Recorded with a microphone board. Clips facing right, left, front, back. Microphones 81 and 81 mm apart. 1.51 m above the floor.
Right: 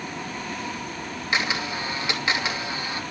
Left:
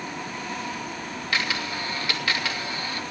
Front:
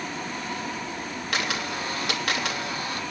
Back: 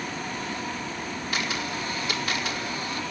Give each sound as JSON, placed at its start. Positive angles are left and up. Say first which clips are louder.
{"t": 1.3, "sound": "a camera shutter", "louder": "right 2 dB, front 2 dB", "azimuth_deg": -20, "distance_m": 3.0}